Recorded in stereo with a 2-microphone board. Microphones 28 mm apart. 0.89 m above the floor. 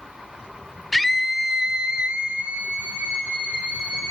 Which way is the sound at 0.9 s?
5° left (ahead or behind).